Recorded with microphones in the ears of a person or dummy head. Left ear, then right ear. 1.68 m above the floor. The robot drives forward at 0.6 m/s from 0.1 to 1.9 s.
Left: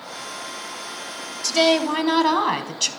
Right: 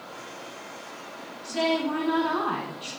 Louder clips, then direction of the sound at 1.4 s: Left 8 dB; 80° left.